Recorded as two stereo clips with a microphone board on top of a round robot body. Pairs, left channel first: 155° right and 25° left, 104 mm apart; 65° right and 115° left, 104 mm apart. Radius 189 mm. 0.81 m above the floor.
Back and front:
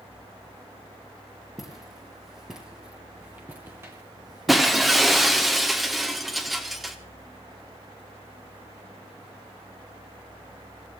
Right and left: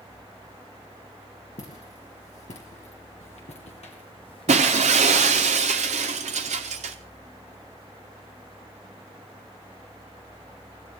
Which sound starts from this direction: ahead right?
Footsteps, at 1.6 s.